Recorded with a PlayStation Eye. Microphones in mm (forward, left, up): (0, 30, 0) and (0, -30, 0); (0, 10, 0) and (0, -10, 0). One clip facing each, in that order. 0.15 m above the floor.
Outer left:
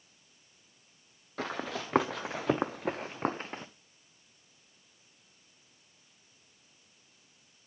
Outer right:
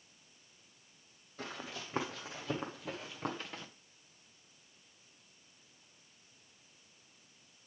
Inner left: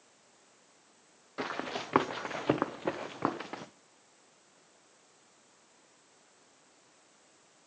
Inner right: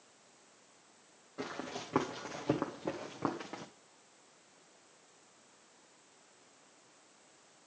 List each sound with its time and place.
1.4 s running footsteps: 75° left (ahead or behind), 1.1 m; by 3.6 s 30° left (ahead or behind), 1.0 m